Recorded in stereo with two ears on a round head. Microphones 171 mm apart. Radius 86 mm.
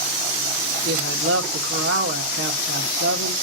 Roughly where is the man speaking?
Right.